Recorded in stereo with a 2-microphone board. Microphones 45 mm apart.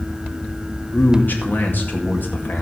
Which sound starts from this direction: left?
A man speaking, at 0.9 s.